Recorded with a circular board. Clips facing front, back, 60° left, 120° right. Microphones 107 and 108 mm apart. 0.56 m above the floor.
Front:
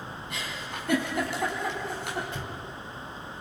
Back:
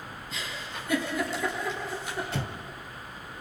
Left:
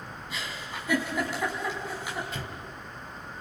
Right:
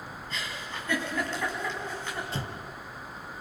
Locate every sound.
0.3 s a giggle: 20° right, 5 m
2.3 s an explosion: 175° right, 0.8 m